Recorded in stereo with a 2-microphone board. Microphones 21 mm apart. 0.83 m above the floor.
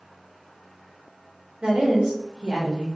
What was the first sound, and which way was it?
A woman speaking, 60° right (ahead or behind).